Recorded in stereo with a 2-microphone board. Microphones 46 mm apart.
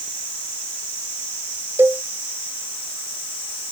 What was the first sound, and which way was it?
A cowbell, 50° right (ahead or behind).